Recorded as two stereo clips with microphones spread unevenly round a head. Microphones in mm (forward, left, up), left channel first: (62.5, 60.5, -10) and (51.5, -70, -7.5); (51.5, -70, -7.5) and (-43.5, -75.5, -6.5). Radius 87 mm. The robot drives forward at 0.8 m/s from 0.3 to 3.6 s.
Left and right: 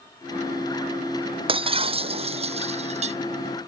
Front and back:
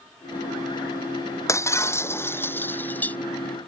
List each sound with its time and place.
1.5 s breaking glass: 55° right; by 3.2 s 70° right